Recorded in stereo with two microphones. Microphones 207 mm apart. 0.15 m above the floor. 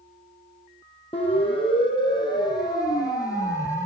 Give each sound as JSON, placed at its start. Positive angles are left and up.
{"t": 1.1, "sound": "a siren", "side_deg": 30, "distance_m": 7.0}